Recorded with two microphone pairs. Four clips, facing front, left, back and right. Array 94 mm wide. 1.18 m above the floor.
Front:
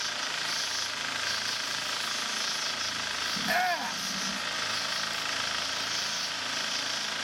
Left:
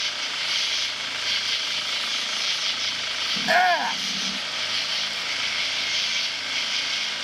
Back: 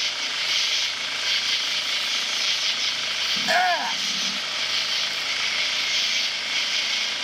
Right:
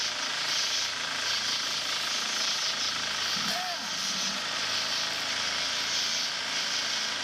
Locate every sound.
0.0 s an insect: 145° left
3.4 s a shout: 115° left